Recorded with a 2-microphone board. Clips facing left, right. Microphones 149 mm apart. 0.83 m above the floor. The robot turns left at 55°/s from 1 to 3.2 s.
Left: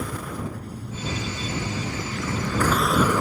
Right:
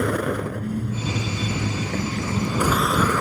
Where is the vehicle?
75° right; by 3.2 s 165° left.